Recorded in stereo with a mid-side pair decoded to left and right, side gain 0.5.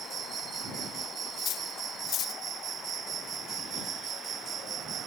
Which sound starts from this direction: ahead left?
Cutlery clinking, at 1.4 s.